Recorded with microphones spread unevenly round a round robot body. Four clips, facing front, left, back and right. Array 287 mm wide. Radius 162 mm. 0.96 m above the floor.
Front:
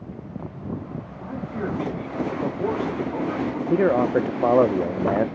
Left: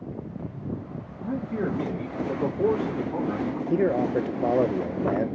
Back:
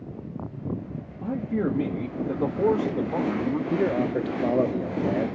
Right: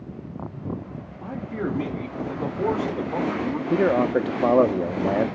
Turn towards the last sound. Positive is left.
turn(degrees=-25)